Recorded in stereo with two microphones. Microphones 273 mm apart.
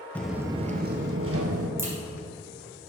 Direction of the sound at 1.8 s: 10° right (ahead or behind).